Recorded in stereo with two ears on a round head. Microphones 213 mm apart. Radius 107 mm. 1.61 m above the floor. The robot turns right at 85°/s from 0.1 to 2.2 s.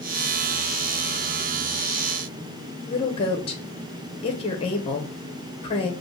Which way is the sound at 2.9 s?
25° left (ahead or behind).